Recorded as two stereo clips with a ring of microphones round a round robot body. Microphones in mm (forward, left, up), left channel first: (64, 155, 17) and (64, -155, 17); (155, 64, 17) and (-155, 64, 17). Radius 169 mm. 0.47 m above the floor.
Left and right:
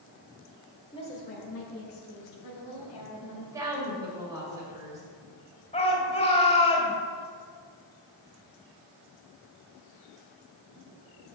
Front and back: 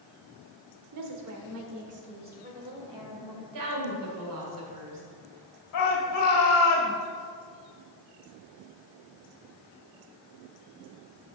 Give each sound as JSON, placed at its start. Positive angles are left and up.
{"t": 0.9, "sound": "a woman speaking", "azimuth_deg": 165, "distance_m": 1.3}
{"t": 3.5, "sound": "a woman speaking", "azimuth_deg": -170, "distance_m": 2.5}
{"t": 5.7, "sound": "a shout", "azimuth_deg": 25, "distance_m": 1.9}